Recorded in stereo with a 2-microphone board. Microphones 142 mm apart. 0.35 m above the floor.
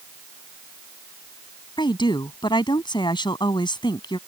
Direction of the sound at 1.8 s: 35° left (ahead or behind).